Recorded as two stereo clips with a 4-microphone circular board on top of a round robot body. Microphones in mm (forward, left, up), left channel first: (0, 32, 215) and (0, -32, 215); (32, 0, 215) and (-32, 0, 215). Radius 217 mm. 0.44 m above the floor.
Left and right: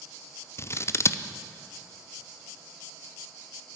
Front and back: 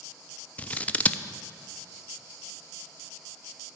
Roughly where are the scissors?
Ahead left.